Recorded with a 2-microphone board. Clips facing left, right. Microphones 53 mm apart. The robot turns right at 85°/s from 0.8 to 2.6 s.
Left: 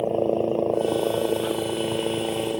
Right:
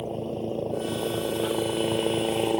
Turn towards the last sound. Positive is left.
turn(degrees=-125)